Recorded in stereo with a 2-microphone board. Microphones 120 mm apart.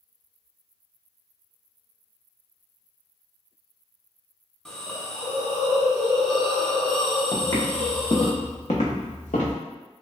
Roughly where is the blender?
No blender in this recording.